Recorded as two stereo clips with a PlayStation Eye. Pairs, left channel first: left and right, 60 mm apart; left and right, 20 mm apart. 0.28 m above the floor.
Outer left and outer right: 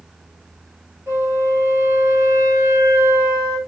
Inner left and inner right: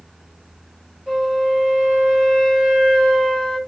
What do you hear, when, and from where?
1.1 s a flute: 55° right (ahead or behind), 3 m